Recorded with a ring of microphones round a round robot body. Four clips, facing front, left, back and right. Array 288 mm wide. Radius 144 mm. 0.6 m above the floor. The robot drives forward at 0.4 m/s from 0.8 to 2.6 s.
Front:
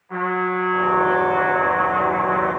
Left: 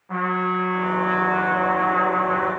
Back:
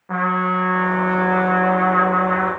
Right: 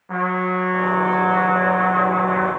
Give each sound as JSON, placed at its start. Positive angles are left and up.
{"t": 0.1, "sound": "a trumpet", "azimuth_deg": -160, "distance_m": 7.0}